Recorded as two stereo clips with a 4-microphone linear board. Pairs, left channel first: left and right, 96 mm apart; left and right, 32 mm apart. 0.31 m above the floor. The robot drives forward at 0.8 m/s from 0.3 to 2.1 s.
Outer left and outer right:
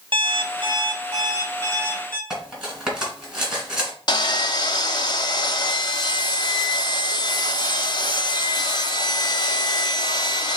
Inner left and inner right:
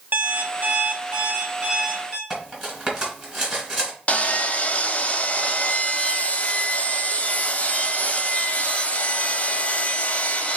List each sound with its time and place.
0.1 s an alarm clock: 65° right (ahead or behind), 0.8 m; by 2.2 s 25° right (ahead or behind), 1.6 m
2.3 s cutlery clinking: 5° right (ahead or behind), 2 m
4.1 s sawing: 50° left (ahead or behind), 0.5 m